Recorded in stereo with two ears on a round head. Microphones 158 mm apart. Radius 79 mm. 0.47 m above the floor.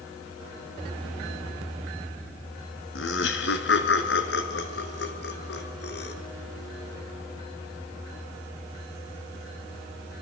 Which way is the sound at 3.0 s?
80° left.